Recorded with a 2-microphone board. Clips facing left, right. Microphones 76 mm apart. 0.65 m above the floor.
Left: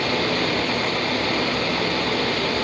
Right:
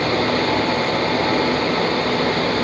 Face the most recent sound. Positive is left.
No sound to turn to.